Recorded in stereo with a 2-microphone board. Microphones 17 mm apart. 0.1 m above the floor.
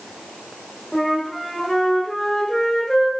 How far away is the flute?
About 1.2 m.